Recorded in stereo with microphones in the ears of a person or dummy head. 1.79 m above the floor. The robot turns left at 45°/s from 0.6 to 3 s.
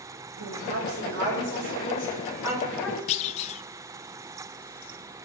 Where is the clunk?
35° left (ahead or behind), 0.7 m.